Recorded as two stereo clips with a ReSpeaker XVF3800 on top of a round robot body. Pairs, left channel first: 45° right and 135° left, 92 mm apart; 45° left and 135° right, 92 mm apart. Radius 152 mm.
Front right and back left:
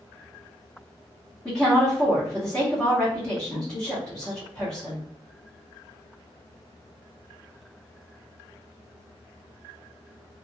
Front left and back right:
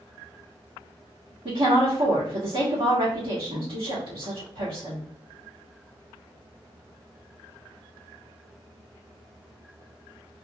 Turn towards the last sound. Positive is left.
turn(degrees=-125)